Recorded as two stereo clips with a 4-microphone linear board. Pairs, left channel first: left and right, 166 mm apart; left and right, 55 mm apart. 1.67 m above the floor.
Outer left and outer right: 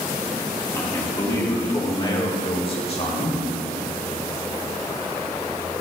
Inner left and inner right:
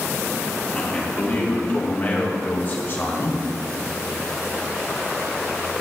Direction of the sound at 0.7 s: 15° left (ahead or behind).